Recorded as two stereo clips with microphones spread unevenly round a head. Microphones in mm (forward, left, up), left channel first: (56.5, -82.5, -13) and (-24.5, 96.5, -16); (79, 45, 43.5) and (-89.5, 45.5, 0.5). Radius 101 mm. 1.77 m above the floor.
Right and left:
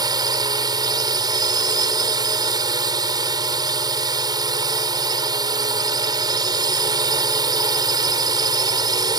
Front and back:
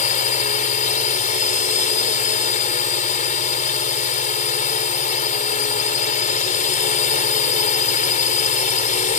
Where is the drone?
45° left.